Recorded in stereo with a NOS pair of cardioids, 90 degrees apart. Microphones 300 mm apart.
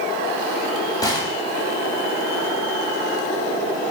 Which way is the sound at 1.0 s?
15° left.